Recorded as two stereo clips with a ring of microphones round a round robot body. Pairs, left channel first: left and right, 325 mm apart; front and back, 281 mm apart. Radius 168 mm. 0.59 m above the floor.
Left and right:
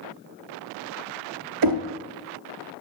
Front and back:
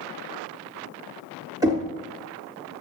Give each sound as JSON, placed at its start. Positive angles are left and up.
{"t": 1.6, "sound": "knocking", "azimuth_deg": -100, "distance_m": 0.8}